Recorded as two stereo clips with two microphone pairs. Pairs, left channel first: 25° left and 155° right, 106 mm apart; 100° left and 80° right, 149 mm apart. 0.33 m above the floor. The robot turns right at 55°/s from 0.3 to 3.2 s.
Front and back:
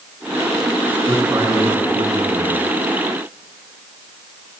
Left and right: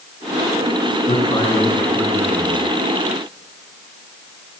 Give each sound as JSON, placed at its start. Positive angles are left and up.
{"t": 1.0, "sound": "a man speaking", "azimuth_deg": 125, "distance_m": 4.0}